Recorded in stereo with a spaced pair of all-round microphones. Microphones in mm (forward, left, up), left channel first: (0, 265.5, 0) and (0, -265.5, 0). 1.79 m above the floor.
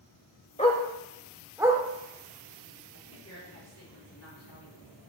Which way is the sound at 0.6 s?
10° left (ahead or behind).